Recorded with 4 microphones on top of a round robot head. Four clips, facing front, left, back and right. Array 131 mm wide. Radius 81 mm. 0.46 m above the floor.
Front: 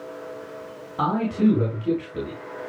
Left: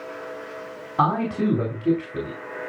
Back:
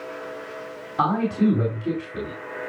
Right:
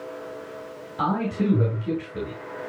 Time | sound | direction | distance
1.0 | a man speaking | 105° left | 5 m